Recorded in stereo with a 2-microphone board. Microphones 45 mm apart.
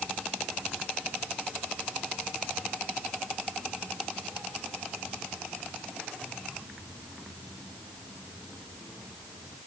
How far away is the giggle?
No giggle in this recording.